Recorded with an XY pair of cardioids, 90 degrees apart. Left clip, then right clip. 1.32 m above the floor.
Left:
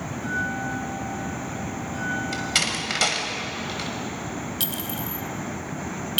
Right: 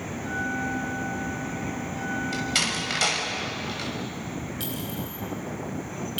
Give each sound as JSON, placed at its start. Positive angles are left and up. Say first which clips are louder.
{"t": 0.1, "sound": "a bell", "louder": "left 2 dB", "azimuth_deg": 50, "distance_m": 7.5}
{"t": 2.3, "sound": "a door slam", "louder": "left 1 dB", "azimuth_deg": 25, "distance_m": 6.0}
{"t": 4.6, "sound": "a clink", "louder": "left 4 dB", "azimuth_deg": 70, "distance_m": 3.0}